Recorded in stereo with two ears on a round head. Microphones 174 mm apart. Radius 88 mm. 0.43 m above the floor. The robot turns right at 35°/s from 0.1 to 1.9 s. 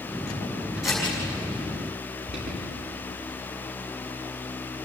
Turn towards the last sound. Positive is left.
turn(degrees=-50)  # may be behind; listen again after turning